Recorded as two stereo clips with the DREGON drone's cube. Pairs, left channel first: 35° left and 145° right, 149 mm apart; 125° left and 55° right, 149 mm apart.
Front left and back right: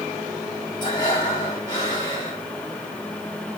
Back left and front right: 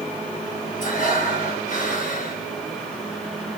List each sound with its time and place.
0.8 s breathing: 95° left, 2 m